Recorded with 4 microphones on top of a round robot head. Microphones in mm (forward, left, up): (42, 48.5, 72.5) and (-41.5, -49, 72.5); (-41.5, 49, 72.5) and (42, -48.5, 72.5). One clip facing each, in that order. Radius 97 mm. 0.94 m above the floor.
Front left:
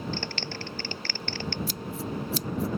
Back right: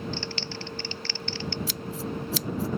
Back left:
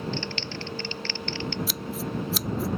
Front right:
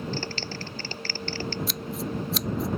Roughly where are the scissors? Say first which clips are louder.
Back right 1 dB, even; behind right.